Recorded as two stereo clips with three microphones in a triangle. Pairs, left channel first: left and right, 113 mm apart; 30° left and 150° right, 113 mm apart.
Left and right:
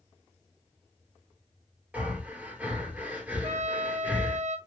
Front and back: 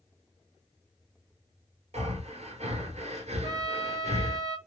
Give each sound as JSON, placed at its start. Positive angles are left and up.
{"t": 1.9, "sound": "breathing", "azimuth_deg": -165, "distance_m": 1.2}
{"t": 3.4, "sound": "a trumpet", "azimuth_deg": -95, "distance_m": 0.9}